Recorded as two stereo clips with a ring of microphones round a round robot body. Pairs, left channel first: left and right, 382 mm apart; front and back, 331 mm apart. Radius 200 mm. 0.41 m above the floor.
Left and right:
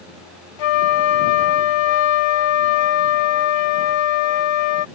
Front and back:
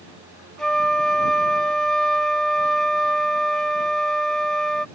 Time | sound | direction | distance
0.6 | a flute | 90° left | ?